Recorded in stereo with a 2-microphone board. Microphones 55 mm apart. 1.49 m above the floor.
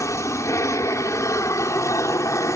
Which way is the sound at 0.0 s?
65° left (ahead or behind).